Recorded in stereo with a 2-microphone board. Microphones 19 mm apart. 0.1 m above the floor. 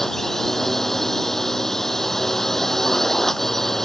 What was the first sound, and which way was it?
A drone, 15° left (ahead or behind).